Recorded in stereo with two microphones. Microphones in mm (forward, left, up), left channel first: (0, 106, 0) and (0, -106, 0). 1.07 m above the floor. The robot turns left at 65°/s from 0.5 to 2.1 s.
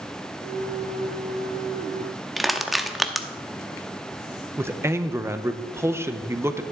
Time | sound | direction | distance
2.4 | crushing | centre (ahead or behind) | 0.6 m
4.6 | a man speaking | 10° right (ahead or behind) | 0.6 m